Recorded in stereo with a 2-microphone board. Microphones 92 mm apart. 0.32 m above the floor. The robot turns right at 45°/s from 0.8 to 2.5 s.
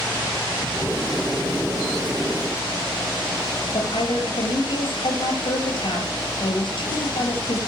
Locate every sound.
3.7 s a woman speaking: 60° left (ahead or behind), 6.5 m